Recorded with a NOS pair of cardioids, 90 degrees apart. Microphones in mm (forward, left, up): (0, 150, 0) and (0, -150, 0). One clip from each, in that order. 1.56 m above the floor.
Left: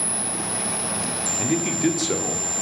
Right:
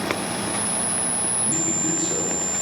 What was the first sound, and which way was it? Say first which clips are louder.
A man speaking: left 3 dB; 60° left.